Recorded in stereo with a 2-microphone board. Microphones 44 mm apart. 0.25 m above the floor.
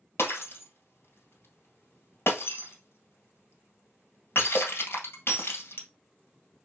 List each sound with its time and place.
0.2 s breaking glass: 60° left (ahead or behind), 2 m